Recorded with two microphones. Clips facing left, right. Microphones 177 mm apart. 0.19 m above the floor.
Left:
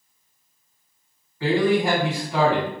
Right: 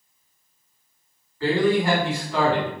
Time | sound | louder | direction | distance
1.4 | a man speaking | even | 20° left (ahead or behind) | 1.5 m